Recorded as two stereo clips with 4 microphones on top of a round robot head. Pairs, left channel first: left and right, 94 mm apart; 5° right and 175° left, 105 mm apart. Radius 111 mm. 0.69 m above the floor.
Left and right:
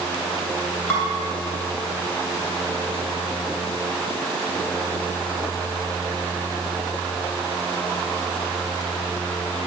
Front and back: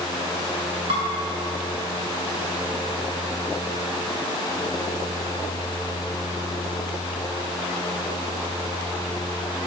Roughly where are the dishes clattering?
Behind left.